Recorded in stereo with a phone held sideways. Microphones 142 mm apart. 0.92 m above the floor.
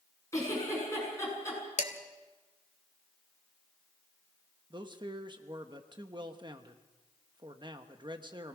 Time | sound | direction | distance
0.3 | a giggle | 20° left (ahead or behind) | 8 m
1.8 | dishes clattering | 55° left (ahead or behind) | 2 m
4.7 | a man speaking | 35° right (ahead or behind) | 1.1 m